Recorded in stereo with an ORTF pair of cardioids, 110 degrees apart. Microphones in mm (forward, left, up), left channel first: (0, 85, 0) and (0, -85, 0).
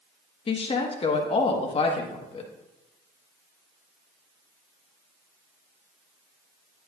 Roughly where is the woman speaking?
Ahead left.